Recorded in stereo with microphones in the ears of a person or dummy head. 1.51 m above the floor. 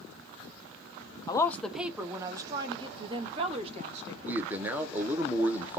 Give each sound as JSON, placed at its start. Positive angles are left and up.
{"t": 1.3, "sound": "a woman speaking", "side_deg": 20, "distance_m": 0.6}
{"t": 4.2, "sound": "a man speaking", "side_deg": -5, "distance_m": 1.0}